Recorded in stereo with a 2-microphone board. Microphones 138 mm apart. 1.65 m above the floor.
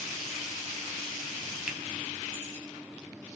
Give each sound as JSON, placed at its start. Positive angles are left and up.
{"t": 1.7, "sound": "a finger snap", "side_deg": -5, "distance_m": 0.6}